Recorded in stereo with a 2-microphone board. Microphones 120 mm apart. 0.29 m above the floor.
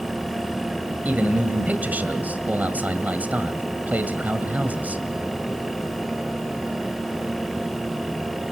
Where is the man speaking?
15° right (ahead or behind), 1.8 m.